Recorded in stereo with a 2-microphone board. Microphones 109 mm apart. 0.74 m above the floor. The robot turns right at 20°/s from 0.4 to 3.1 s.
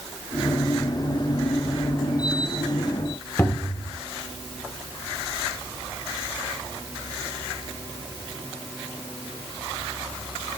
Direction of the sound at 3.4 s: 15° left (ahead or behind).